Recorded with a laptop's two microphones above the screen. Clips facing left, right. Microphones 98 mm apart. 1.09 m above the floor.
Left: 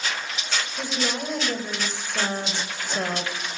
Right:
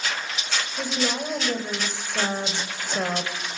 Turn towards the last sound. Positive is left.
turn(degrees=-15)  # may be behind; listen again after turning